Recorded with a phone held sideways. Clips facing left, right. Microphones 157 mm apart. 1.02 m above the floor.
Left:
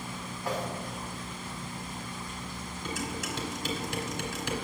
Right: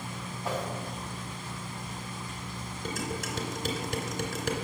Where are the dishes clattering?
55° right (ahead or behind), 2.5 m.